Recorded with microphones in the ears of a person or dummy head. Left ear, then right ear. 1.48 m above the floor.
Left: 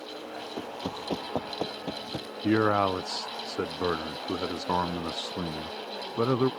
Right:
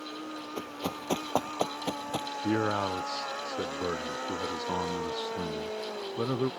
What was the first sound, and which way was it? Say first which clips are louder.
Running footsteps: even; 50° right (ahead or behind).